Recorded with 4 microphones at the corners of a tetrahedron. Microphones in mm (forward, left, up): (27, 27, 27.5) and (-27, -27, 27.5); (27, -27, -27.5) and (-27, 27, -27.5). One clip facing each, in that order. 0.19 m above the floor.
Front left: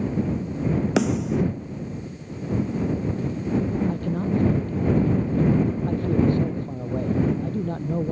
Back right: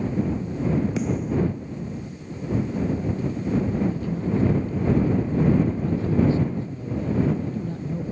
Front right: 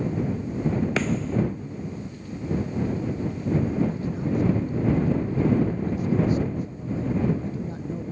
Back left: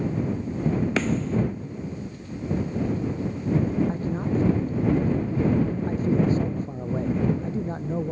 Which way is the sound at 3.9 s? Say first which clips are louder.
Front left 1 dB, back left 1 dB; 85° left.